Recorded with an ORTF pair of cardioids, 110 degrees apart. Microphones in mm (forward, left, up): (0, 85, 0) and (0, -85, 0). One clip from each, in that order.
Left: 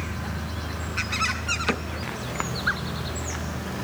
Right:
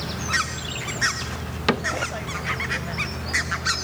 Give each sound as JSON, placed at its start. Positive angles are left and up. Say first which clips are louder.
{"t": 1.7, "sound": "a cupboard door", "louder": "right 5 dB", "azimuth_deg": -25}